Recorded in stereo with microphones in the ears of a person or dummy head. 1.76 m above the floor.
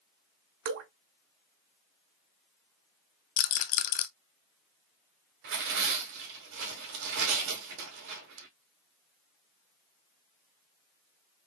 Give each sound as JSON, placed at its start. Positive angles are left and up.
{"t": 0.7, "sound": "dripping", "side_deg": -60, "distance_m": 0.9}
{"t": 3.4, "sound": "a rattle", "side_deg": 50, "distance_m": 0.5}
{"t": 5.4, "sound": "tearing paper", "side_deg": -65, "distance_m": 1.9}